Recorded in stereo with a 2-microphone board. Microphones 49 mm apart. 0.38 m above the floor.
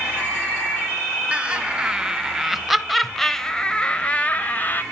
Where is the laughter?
25° right (ahead or behind), 2 m; by 4.8 s 40° left (ahead or behind), 1.5 m.